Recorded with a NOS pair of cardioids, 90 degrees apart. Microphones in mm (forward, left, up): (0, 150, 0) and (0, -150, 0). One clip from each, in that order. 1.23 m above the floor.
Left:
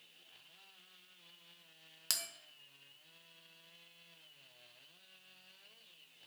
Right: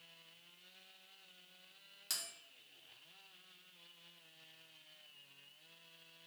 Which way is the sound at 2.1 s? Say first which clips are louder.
Left 4 dB; 45° left.